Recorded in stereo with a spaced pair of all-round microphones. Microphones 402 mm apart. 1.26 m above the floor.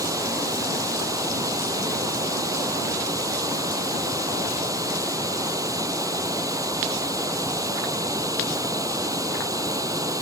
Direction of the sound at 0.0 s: 10° right (ahead or behind).